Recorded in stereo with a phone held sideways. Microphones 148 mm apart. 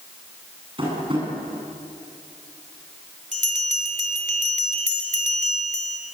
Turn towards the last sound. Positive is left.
turn(degrees=-55)  # may be behind; listen again after turning